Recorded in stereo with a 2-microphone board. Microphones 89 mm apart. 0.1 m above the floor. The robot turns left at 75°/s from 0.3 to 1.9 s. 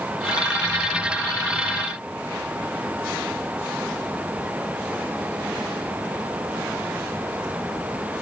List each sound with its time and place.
Only background noise.